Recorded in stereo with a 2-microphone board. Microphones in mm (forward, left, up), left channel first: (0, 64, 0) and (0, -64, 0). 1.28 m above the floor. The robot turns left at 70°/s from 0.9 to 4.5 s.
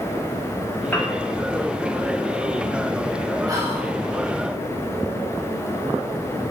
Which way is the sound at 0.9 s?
15° left (ahead or behind).